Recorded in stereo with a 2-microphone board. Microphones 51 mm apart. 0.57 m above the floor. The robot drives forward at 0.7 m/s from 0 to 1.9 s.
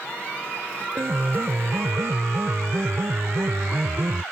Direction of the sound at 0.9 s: 60° right (ahead or behind).